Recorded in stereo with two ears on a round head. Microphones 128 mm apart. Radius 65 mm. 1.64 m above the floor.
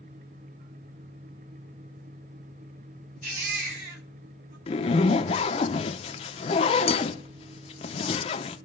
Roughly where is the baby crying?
Right.